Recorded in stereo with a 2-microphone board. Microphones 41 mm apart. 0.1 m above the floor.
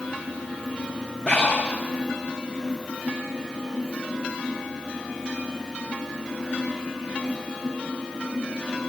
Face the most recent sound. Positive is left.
turn(degrees=30)  # may be behind; listen again after turning